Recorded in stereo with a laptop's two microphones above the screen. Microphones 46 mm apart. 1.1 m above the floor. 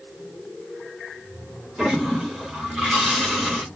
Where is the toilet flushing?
10° right (ahead or behind), 1.2 m.